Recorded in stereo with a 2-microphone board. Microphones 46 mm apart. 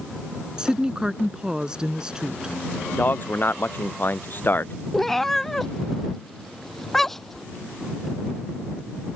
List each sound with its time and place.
0.6 s a woman speaking: 15° right (ahead or behind)
2.9 s a man speaking: 45° left (ahead or behind)
4.9 s a cat meowing: 5° left (ahead or behind)